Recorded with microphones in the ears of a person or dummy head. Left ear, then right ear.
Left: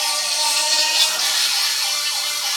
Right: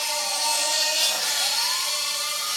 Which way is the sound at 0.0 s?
40° left (ahead or behind).